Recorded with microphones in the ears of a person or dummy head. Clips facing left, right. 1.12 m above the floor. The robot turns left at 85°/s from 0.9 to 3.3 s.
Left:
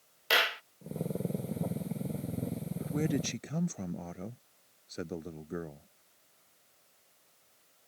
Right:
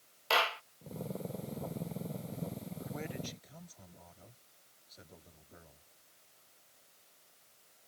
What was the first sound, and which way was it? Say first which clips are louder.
A clap: even; 20° left (ahead or behind).